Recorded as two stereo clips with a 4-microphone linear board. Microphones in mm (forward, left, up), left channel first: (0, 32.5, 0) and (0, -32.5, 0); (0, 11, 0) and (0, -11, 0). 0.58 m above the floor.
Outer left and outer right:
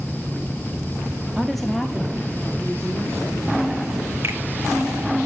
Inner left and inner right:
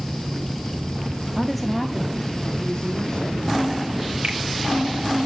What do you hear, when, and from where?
1.4 s a woman speaking: 5° right (ahead or behind), 0.7 m; by 3.6 s 25° left (ahead or behind), 2.5 m
4.2 s a finger snap: 45° right (ahead or behind), 3 m